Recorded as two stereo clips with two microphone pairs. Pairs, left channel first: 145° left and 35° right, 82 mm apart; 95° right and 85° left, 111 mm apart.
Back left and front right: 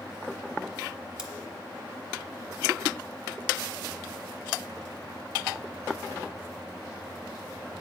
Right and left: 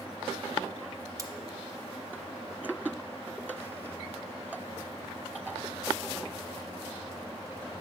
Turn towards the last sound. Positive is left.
turn(degrees=45)